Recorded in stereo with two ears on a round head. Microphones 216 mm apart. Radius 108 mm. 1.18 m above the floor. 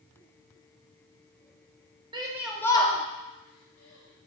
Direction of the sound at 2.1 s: 20° right (ahead or behind).